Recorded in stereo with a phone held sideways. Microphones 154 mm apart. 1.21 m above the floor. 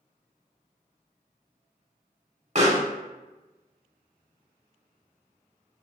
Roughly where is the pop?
Right.